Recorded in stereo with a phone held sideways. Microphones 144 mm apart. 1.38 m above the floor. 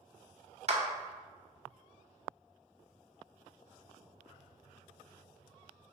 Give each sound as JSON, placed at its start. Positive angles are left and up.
{"t": 0.7, "sound": "a clap", "side_deg": -50, "distance_m": 0.6}